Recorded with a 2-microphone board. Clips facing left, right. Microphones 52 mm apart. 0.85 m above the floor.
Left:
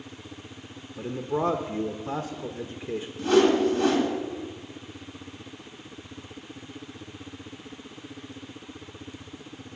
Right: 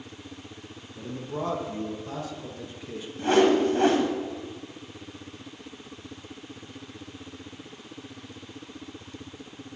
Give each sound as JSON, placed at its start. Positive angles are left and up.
{"t": 1.0, "sound": "a man speaking", "side_deg": 30, "distance_m": 0.7}
{"t": 3.2, "sound": "a whoosh", "side_deg": -35, "distance_m": 1.7}